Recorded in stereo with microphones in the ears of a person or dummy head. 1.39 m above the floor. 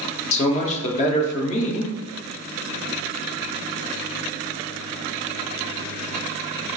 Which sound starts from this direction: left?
A man speaking, at 0.3 s.